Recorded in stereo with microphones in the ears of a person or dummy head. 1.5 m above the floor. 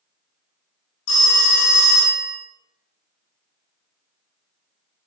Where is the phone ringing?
70° left (ahead or behind), 1.0 m.